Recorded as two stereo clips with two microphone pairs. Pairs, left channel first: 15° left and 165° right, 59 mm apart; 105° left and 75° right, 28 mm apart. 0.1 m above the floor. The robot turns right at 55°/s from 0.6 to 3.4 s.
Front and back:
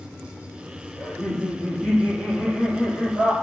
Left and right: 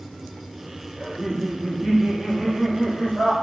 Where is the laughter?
65° right, 1.7 m; by 3.3 s 65° left, 1.7 m.